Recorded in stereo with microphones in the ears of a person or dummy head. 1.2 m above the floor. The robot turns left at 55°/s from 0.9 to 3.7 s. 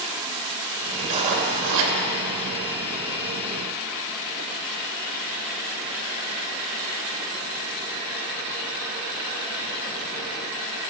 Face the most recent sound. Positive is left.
turn(degrees=-175)